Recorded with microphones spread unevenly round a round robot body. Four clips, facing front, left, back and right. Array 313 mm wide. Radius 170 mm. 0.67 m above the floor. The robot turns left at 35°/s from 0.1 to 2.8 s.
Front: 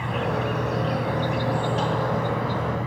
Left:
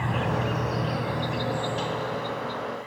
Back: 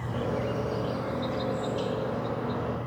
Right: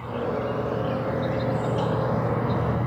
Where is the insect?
55° left; by 2.9 s 40° right.